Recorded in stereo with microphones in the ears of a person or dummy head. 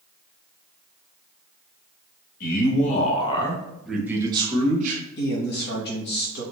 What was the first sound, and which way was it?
A man speaking, 50° left (ahead or behind).